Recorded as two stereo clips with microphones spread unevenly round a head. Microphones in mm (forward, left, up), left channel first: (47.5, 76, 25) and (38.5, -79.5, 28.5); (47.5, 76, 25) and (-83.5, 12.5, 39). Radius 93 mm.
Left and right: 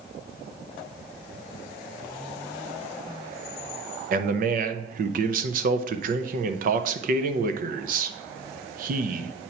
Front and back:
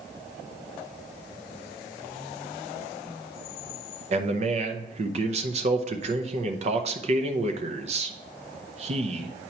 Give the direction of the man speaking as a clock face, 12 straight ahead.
4 o'clock.